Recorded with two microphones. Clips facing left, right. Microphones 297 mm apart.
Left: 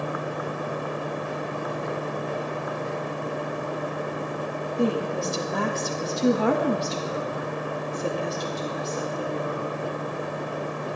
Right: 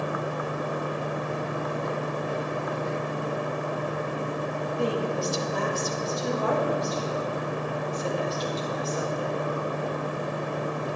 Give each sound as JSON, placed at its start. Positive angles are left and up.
{"t": 4.8, "sound": "a woman speaking", "side_deg": 55, "distance_m": 2.0}